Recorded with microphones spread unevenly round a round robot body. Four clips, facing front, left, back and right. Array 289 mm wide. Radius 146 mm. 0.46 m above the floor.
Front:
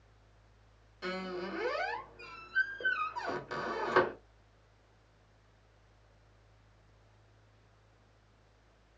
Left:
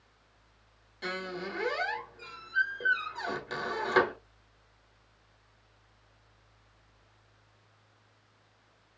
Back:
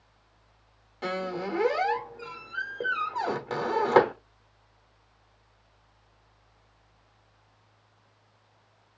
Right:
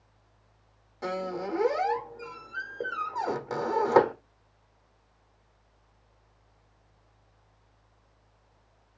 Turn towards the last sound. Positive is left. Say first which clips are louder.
# right 5 dB, back 7 dB
turn(degrees=-140)